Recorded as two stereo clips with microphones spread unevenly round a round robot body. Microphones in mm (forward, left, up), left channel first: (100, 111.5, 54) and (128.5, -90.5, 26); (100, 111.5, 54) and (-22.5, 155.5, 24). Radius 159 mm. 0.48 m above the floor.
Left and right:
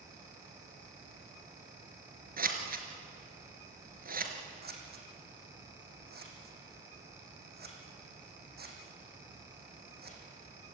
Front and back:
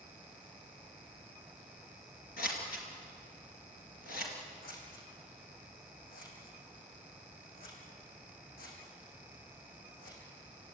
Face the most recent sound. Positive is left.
turn(degrees=-40)